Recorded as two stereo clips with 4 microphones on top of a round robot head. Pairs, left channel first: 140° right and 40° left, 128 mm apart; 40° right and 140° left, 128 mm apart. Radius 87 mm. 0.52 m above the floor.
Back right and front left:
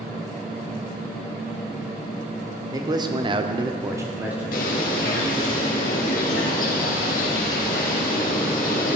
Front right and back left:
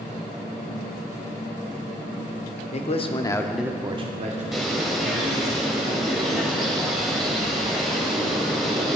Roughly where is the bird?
Behind right.